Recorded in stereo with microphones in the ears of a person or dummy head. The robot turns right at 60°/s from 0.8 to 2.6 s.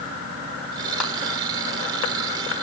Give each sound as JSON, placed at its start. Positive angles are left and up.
{"t": 1.0, "sound": "a clap", "side_deg": -5, "distance_m": 6.0}